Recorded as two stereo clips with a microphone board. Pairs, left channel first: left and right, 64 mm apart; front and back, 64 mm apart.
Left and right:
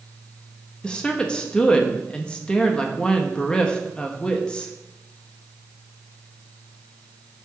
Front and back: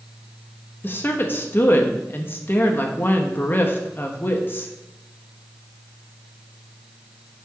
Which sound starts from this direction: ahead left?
A woman speaking, at 0.8 s.